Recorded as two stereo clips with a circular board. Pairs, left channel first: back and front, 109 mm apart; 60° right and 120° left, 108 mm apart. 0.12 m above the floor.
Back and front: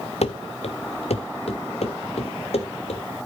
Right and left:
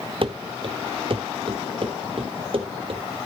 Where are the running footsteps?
160° left, 0.8 m.